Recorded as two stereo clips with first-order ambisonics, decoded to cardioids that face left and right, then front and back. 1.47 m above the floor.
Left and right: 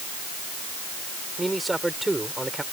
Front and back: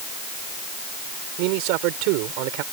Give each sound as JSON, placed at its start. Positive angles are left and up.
{"t": 1.4, "sound": "a man speaking", "azimuth_deg": -175}